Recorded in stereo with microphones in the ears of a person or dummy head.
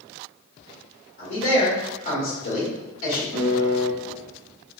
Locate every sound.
1.2 s a man speaking: 65° left (ahead or behind), 1.8 m
3.3 s a piano: 25° left (ahead or behind), 1.8 m